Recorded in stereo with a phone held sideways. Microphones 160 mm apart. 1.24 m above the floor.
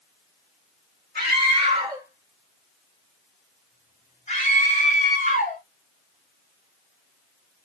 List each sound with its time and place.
1.1 s a scream: 55° right (ahead or behind), 1.3 m; by 5.6 s 55° left (ahead or behind), 3 m